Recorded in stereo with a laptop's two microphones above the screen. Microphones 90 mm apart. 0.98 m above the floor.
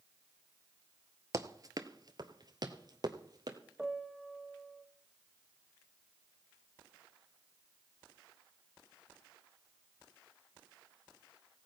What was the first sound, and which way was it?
Running footsteps, 35° right (ahead or behind).